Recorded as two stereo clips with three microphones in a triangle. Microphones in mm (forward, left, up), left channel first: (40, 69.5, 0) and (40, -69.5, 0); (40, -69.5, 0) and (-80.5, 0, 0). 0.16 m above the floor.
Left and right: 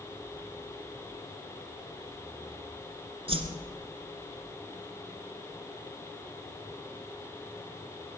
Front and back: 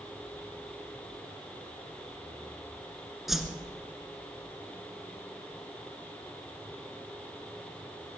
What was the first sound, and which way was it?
A whoosh, 120° right.